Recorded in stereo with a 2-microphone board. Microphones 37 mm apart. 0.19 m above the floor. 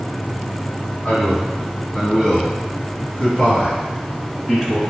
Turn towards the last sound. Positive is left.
turn(degrees=15)  # may be behind; listen again after turning